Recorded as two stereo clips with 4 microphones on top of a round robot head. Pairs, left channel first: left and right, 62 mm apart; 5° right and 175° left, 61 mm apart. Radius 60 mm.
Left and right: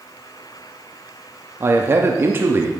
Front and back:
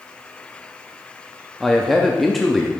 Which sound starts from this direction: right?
A man speaking, at 1.6 s.